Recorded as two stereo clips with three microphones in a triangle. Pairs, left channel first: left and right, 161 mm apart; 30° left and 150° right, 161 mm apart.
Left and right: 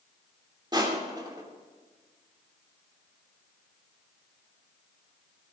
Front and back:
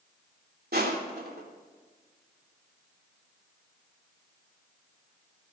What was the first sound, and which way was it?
Crushing, 155° right.